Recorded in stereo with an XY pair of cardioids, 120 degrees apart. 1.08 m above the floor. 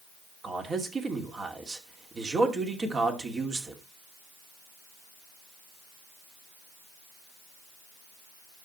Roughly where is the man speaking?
Ahead right.